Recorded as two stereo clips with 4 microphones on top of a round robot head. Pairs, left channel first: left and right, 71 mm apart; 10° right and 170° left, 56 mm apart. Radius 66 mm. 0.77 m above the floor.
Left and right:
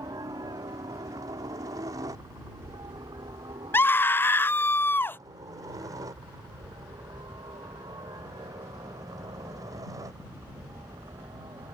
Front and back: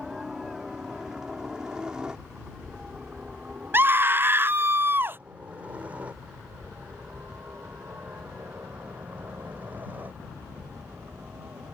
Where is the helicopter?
105° right; by 11.8 s 125° right.